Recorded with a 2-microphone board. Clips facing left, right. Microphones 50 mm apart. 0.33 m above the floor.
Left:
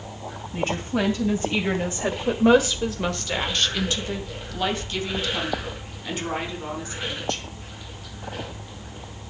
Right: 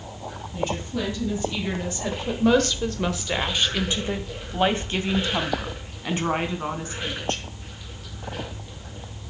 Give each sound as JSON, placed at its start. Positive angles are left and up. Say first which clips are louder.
{"t": 0.5, "sound": "a woman speaking", "louder": "left 3 dB", "side_deg": 35, "distance_m": 2.5}